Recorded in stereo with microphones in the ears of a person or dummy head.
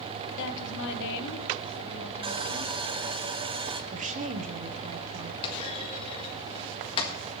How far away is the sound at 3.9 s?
About 1.2 m.